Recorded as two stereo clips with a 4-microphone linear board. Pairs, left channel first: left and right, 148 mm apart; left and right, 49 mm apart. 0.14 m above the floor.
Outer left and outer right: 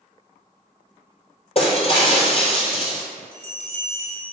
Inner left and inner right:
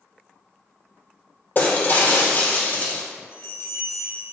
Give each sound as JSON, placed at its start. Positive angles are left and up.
{"t": 1.6, "sound": "breaking glass", "side_deg": 40, "distance_m": 2.0}
{"t": 3.3, "sound": "a bell", "side_deg": 65, "distance_m": 2.5}